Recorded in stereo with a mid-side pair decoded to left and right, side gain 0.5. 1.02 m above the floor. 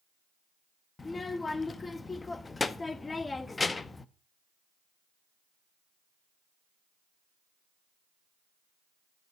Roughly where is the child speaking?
Ahead left.